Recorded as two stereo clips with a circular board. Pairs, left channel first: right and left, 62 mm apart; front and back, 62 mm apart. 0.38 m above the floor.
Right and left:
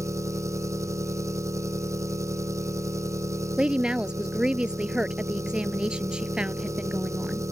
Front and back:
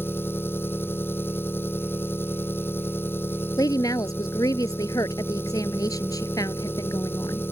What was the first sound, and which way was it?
An engine running, 55° left.